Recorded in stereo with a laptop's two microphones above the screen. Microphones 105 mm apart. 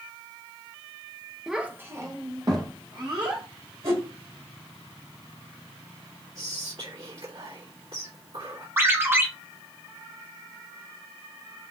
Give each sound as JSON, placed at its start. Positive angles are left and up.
{"t": 1.5, "sound": "a child speaking", "side_deg": -5, "distance_m": 0.6}
{"t": 3.8, "sound": "a whoosh", "side_deg": -70, "distance_m": 2.5}
{"t": 6.3, "sound": "whispering", "side_deg": -70, "distance_m": 1.9}
{"t": 8.8, "sound": "a ringtone", "side_deg": -20, "distance_m": 0.7}